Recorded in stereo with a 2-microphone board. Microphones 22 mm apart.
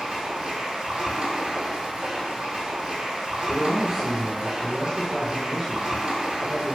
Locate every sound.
0.0 s running water: 50° right (ahead or behind), 0.8 m
3.5 s a man speaking: 25° right (ahead or behind), 1.6 m